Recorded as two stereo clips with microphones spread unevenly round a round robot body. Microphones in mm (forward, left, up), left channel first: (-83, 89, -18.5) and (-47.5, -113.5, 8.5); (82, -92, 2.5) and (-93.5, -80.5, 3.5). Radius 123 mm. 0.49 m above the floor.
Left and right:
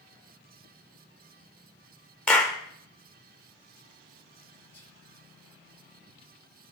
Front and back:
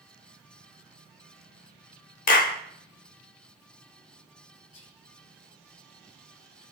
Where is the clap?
20° left, 0.9 m.